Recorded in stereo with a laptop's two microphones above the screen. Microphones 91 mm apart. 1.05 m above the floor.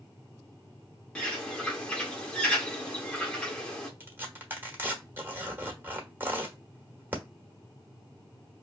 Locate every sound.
1.1 s a bird: 10° left (ahead or behind), 1.1 m
4.0 s tearing paper: 25° right (ahead or behind), 1.2 m